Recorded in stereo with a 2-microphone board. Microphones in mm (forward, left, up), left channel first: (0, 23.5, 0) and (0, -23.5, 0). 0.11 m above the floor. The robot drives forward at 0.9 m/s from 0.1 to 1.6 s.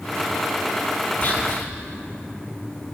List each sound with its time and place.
1.2 s whispering: 40° left (ahead or behind), 3.5 m; by 1.7 s 45° left (ahead or behind), 3.5 m